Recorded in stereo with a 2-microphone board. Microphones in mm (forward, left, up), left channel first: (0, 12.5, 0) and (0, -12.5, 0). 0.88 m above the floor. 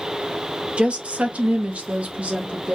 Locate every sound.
0.8 s a woman speaking: 45° right (ahead or behind), 0.7 m